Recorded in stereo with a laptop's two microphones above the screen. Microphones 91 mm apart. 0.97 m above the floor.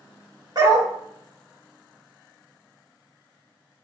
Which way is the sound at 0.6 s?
50° right (ahead or behind).